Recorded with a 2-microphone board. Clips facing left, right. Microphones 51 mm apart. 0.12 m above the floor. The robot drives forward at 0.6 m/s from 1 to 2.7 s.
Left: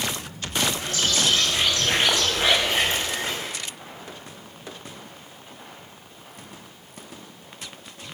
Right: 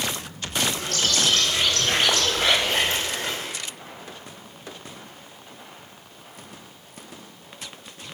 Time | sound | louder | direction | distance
0.8 | a bird | even | 15° left (ahead or behind) | 7.5 m